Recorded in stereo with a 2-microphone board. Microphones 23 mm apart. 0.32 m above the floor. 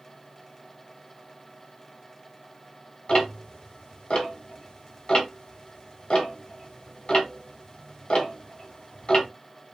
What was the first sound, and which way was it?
Ticking, 40° left (ahead or behind).